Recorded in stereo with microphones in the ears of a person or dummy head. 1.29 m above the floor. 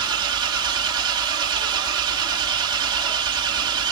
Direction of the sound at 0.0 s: 25° right (ahead or behind).